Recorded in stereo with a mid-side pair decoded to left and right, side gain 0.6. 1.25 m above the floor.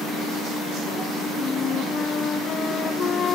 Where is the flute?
40° left.